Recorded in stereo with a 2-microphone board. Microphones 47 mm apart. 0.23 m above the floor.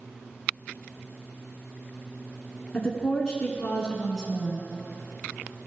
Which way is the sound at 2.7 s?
15° left (ahead or behind).